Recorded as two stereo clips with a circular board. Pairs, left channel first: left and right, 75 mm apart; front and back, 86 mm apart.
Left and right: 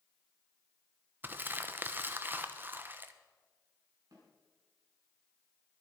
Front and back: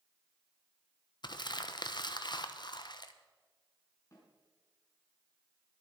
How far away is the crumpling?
About 1.0 m.